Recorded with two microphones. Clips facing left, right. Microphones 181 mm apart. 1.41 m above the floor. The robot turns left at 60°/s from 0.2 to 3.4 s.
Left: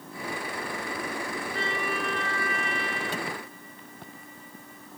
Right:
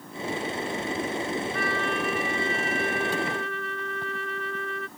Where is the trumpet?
30° left; by 4.9 s 80° right.